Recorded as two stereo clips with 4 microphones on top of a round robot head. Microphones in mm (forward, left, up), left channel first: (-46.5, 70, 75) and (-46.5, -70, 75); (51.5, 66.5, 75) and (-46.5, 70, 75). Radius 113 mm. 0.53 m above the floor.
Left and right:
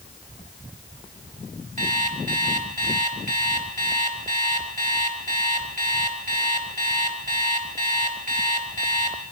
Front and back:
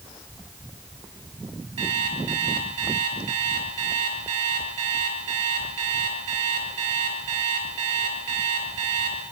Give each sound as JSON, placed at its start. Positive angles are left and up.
{"t": 1.8, "sound": "an alarm clock", "azimuth_deg": -115, "distance_m": 5.5}